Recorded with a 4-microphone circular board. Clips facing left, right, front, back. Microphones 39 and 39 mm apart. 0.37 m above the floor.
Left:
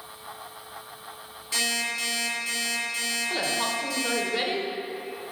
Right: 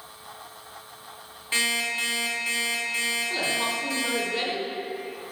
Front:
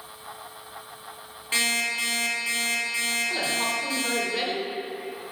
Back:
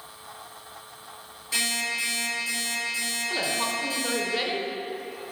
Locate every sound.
1.5 s an alarm clock: 45° right, 2 m
3.3 s a woman speaking: 115° left, 0.8 m